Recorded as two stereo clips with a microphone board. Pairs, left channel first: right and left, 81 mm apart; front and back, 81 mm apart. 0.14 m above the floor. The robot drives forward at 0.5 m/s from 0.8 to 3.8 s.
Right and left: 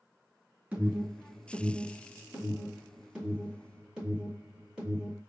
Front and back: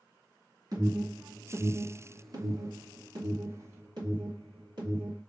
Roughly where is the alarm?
Behind.